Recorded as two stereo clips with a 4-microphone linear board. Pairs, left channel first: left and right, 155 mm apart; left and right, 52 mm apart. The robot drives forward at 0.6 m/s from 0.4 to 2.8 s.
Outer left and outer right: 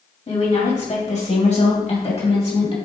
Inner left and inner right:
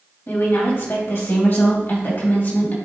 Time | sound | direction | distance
0.3 | a woman speaking | 50° left (ahead or behind) | 2 m